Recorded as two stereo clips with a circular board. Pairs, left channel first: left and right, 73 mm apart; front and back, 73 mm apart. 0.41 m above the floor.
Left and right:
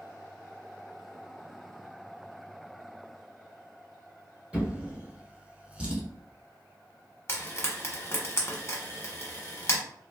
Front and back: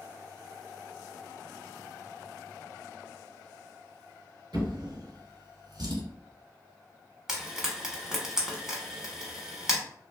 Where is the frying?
100° left, 1.0 m.